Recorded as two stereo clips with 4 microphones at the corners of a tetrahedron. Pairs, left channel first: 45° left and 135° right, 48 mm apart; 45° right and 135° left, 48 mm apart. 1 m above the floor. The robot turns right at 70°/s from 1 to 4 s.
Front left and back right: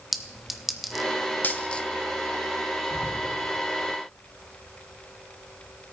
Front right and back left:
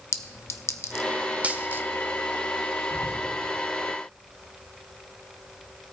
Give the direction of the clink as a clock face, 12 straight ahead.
2 o'clock.